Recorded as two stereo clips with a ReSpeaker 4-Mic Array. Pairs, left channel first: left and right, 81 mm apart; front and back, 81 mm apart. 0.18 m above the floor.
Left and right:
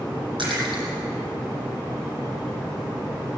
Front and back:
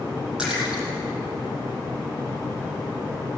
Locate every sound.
0.4 s a splash: 100° right, 8 m